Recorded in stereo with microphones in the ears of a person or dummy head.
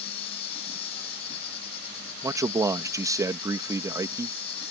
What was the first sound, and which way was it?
An insect, 35° left (ahead or behind).